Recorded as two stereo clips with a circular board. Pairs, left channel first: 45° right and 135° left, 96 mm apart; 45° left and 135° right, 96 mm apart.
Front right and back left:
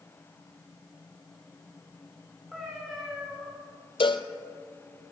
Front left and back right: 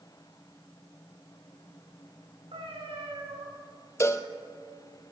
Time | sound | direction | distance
2.5 | a cat meowing | 135° right | 7.5 m
4.0 | a cowbell | 15° right | 0.8 m